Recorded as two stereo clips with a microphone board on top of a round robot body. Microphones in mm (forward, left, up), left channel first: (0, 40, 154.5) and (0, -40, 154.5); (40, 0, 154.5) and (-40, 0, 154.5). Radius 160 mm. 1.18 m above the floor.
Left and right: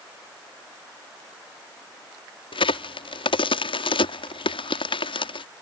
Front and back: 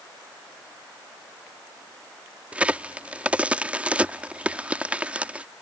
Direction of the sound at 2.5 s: 105° left.